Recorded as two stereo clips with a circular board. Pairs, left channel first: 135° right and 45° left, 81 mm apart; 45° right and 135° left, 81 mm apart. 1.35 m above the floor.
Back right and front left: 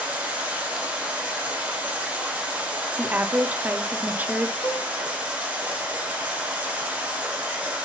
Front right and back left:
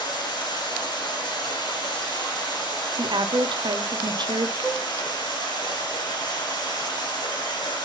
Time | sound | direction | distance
0.0 | running water | 30° right | 1.9 m
3.0 | a woman speaking | 115° left | 0.7 m
4.6 | a cowbell | 135° right | 2 m